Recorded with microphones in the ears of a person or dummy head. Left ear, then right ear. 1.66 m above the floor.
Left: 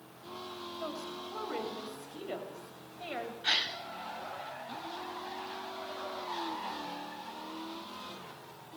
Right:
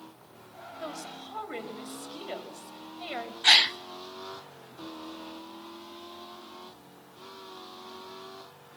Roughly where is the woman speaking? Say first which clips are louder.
Right 2 dB; right.